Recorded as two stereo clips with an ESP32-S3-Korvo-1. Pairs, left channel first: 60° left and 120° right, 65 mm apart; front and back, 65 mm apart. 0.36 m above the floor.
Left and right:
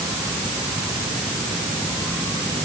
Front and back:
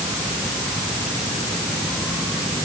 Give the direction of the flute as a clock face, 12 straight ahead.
No flute in this recording.